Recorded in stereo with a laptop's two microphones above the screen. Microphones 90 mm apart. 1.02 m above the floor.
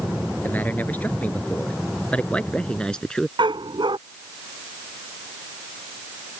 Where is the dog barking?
65° right (ahead or behind).